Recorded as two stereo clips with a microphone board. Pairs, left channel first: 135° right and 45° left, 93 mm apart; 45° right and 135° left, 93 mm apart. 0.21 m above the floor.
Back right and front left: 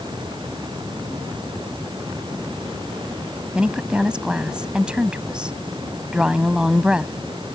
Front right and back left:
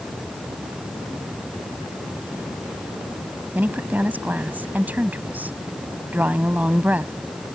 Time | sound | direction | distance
3.5 | a woman speaking | 105° left | ?